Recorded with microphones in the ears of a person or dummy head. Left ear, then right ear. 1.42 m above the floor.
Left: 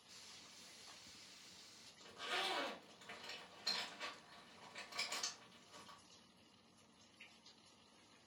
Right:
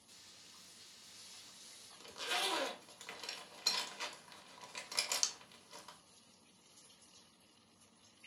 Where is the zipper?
65° right (ahead or behind), 0.9 m.